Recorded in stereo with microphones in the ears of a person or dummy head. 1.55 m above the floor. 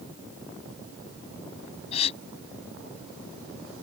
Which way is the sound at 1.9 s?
35° left (ahead or behind).